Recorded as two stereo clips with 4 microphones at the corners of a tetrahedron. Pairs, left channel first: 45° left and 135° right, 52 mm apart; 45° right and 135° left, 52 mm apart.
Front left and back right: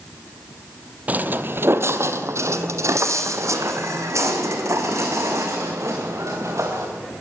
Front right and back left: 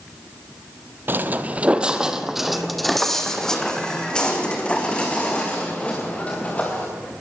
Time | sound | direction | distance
1.1 | footsteps | 170° left | 1.2 m